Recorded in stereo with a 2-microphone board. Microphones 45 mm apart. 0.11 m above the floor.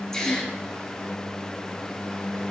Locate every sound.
0.1 s a gasp: 15° left (ahead or behind), 1.4 m